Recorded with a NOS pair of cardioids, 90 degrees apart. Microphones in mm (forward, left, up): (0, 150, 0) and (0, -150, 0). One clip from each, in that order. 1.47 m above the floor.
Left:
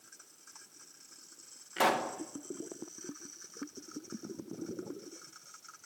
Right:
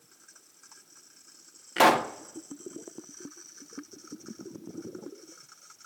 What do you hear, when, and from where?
1.8 s a pop: 45° right, 1.1 m